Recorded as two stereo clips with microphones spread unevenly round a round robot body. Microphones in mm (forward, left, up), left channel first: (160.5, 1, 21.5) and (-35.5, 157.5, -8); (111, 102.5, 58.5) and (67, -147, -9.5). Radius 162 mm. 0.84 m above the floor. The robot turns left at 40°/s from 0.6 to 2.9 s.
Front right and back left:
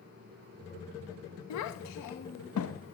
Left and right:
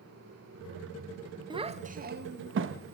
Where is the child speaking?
35° right, 0.7 m; by 2.9 s 90° right, 0.7 m.